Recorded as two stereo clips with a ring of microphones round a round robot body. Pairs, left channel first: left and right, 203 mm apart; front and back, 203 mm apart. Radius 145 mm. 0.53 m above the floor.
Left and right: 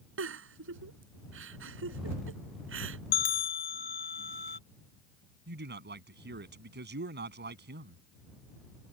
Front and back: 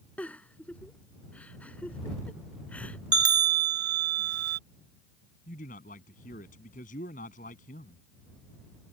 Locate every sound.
0.2 s a giggle: 85° right
3.1 s a bell: 150° left
5.5 s a man speaking: 60° right